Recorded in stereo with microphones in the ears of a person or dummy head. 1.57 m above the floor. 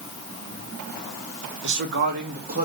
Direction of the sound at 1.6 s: 55° right (ahead or behind).